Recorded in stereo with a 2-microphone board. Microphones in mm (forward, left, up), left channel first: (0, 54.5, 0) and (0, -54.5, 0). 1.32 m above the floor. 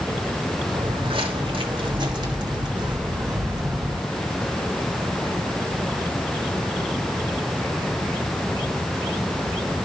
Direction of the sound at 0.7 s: 55° right (ahead or behind).